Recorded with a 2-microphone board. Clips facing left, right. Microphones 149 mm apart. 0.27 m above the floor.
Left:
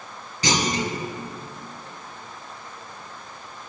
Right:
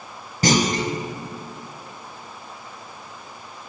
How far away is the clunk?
About 1.0 m.